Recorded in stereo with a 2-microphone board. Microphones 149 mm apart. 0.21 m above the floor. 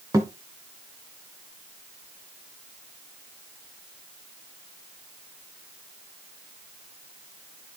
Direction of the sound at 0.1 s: 20° right (ahead or behind).